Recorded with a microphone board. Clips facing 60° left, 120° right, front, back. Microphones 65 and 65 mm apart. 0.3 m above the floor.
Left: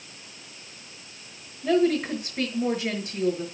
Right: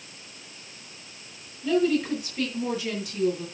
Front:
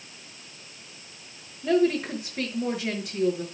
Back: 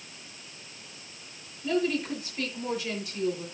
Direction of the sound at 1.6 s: 15° left.